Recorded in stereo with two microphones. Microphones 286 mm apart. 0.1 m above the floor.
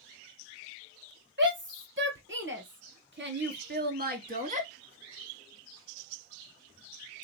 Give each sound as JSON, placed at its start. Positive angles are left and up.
{"t": 1.4, "sound": "a shout", "side_deg": -40, "distance_m": 2.0}